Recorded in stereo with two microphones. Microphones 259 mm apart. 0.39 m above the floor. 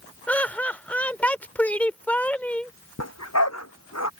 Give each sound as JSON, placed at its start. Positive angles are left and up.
{"t": 0.3, "sound": "laughter", "side_deg": 5}
{"t": 3.0, "sound": "a dog barking", "side_deg": 80}